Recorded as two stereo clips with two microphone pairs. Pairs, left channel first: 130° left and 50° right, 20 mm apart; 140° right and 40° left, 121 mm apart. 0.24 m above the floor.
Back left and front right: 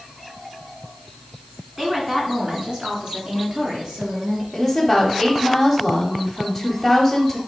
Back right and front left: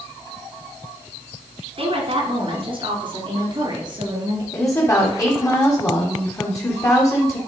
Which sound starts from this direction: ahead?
A woman speaking, at 1.8 s.